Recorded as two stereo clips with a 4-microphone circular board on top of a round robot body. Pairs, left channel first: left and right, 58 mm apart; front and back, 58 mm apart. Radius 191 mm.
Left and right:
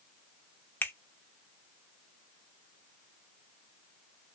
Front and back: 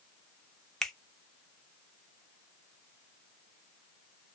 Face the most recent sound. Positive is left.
turn(degrees=75)